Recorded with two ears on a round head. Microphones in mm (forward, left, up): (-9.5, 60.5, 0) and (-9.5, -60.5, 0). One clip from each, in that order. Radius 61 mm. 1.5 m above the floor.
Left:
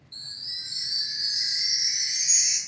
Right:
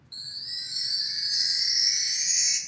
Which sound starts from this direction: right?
A chime, at 0.1 s.